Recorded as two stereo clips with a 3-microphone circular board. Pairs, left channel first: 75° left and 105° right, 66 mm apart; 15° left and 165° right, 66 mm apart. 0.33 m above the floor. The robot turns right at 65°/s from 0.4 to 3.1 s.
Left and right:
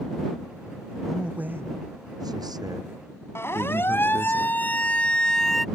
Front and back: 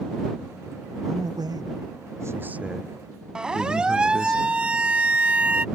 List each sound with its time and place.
1.1 s a man speaking: 165° left; by 4.3 s 60° right
3.4 s a siren: 120° left; by 5.7 s 160° left